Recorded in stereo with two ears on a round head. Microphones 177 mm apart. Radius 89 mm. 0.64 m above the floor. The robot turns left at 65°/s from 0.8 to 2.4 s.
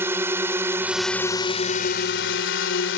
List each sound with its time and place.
0.0 s a drone: 165° right; by 3.0 s 90° left